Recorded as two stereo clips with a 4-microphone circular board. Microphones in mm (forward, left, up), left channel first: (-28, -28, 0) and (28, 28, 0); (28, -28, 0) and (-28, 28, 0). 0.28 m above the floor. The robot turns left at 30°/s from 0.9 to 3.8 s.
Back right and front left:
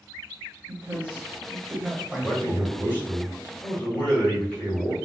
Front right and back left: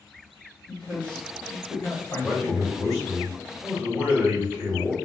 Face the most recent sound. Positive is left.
turn(degrees=-170)